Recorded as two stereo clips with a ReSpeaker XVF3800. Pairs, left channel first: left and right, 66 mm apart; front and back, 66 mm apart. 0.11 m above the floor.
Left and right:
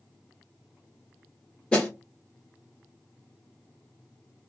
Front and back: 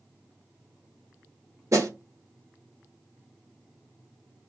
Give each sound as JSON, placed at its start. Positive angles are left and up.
{"t": 1.7, "sound": "a snare drum", "azimuth_deg": 160, "distance_m": 1.3}